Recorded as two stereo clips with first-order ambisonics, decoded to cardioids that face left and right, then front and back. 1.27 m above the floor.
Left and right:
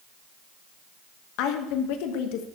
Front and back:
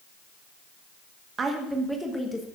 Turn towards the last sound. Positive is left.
turn(degrees=75)